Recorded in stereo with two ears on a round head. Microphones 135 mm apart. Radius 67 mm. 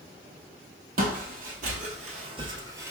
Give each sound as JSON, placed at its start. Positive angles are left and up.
{"t": 1.0, "sound": "footsteps", "side_deg": -65, "distance_m": 1.2}